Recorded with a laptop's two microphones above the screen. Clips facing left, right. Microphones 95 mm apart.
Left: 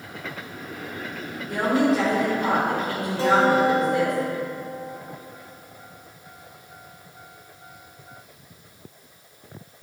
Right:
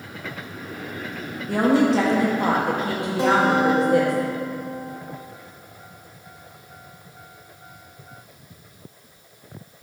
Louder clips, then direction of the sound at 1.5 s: Right 3 dB; 75° right (ahead or behind).